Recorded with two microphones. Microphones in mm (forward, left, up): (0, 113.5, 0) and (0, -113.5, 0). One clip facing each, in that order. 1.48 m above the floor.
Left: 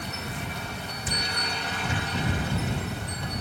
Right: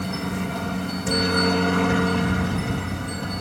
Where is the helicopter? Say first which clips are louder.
Right 9 dB; 65° right (ahead or behind).